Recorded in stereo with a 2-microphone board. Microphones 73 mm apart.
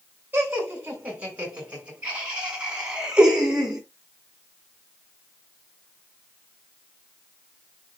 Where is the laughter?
25° right (ahead or behind), 7 m; by 3.8 s 10° right (ahead or behind), 6 m.